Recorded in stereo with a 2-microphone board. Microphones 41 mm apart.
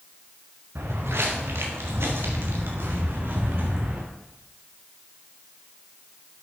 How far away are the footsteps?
About 2.5 m.